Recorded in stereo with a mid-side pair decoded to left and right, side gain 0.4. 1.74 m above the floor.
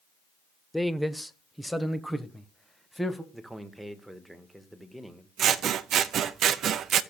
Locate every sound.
0.7 s a man speaking: 5° left, 0.9 m
3.3 s a man speaking: 5° right, 1.7 m
5.4 s scissors: 65° right, 0.7 m